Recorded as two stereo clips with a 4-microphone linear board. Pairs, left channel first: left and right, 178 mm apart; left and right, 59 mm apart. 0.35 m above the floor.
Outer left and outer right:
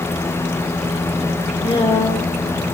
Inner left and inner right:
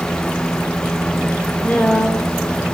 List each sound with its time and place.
1.6 s a woman speaking: 30° left (ahead or behind), 1.2 m